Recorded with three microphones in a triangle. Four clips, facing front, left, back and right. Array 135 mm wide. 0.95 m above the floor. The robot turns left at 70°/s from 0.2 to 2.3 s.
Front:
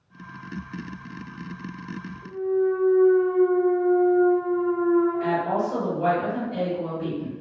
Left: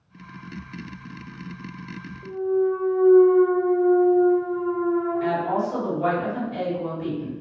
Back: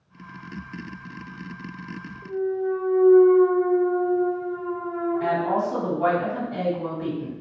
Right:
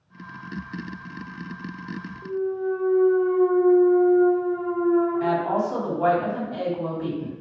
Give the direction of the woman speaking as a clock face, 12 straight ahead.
4 o'clock.